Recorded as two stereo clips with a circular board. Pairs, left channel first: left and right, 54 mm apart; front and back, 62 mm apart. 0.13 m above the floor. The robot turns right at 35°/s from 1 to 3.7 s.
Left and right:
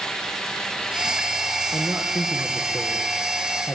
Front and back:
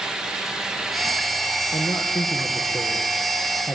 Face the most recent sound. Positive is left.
turn(degrees=55)